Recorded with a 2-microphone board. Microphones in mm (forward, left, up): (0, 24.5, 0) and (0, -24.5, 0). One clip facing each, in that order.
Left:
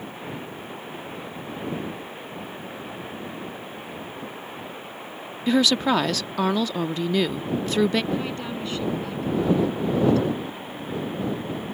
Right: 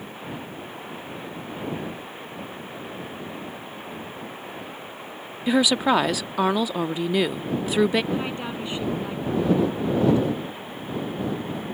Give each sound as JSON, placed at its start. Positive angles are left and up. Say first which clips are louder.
{"t": 5.5, "sound": "a woman speaking", "louder": "even", "side_deg": -15}
{"t": 8.1, "sound": "a woman speaking", "louder": "even", "side_deg": -20}